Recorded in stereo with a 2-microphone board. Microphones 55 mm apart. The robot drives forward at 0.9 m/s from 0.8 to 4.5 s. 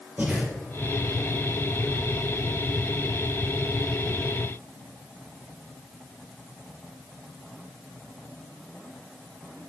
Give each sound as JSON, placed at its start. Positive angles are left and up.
{"t": 0.2, "sound": "breathing", "side_deg": -30, "distance_m": 5.0}